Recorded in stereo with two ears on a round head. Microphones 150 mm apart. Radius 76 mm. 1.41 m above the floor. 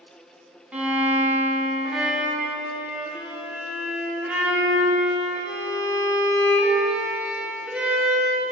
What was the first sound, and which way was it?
A violin, 10° right (ahead or behind).